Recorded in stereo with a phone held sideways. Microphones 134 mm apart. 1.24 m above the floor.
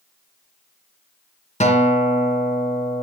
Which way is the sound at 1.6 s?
65° left (ahead or behind).